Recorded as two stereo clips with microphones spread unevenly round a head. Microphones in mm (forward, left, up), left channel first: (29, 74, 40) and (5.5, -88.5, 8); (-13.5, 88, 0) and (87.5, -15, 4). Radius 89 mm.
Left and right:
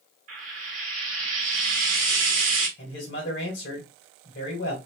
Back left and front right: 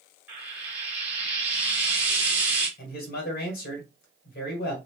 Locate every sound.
0.3 s frying: 110° right, 1.2 m
2.8 s a man speaking: 115° left, 1.5 m